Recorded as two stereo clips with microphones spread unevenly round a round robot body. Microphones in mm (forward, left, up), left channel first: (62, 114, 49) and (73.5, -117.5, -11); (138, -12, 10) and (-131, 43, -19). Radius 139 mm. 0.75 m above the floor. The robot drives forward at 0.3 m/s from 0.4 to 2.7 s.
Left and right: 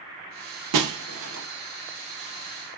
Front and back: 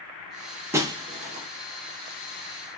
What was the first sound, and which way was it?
Breaking glass, 110° right.